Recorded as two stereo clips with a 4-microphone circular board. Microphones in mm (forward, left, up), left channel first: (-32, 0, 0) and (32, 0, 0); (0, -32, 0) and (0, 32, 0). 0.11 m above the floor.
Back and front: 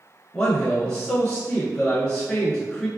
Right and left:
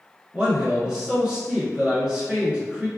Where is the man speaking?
140° left, 1.0 m.